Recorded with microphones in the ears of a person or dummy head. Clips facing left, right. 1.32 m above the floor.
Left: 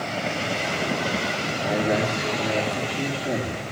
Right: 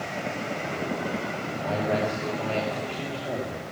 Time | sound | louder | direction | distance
1.6 | a man speaking | left 3 dB | 25° left (ahead or behind) | 2.5 m